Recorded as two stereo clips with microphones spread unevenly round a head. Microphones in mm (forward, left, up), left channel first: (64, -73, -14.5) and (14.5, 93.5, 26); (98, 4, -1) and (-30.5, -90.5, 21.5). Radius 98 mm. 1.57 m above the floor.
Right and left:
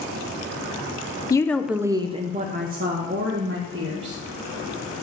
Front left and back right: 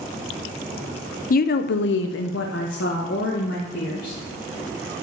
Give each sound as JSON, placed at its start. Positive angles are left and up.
{"t": 1.3, "sound": "a woman speaking", "azimuth_deg": 0, "distance_m": 0.8}